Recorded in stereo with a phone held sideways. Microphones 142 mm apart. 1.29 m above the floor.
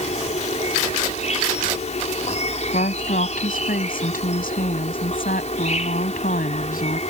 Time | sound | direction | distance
0.0 | an insect | 55° left (ahead or behind) | ?
2.7 | a woman speaking | 80° left | ?